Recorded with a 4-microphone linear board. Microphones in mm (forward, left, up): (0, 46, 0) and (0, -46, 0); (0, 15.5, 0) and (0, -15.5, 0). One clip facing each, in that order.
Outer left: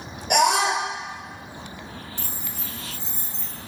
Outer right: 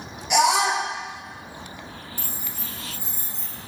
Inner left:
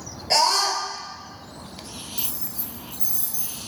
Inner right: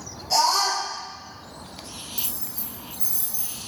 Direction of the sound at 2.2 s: 10° right (ahead or behind).